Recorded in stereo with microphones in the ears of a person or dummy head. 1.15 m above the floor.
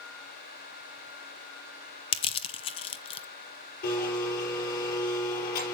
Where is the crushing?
25° left (ahead or behind), 0.7 m.